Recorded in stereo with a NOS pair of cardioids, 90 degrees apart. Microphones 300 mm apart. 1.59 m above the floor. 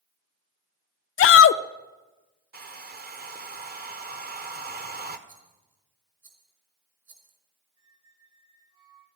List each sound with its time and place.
1.2 s a shout: 45° left, 0.5 m
2.5 s a hair dryer: 30° right, 1.4 m
5.3 s a rattle: 40° right, 5 m
7.8 s a squeak: 65° right, 10 m